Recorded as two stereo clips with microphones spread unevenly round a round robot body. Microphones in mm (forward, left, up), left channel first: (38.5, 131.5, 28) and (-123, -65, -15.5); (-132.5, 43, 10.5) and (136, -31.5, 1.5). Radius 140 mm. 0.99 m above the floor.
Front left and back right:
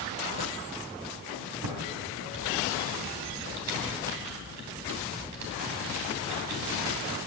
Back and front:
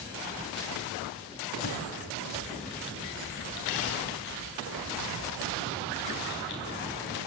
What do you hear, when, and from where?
1.6 s typing on a keyboard: 145° right, 3 m